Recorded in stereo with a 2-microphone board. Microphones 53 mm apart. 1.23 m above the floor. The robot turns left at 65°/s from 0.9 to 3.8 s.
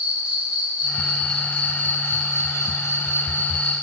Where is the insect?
155° right, 3.5 m; by 3.8 s 15° left, 3.5 m.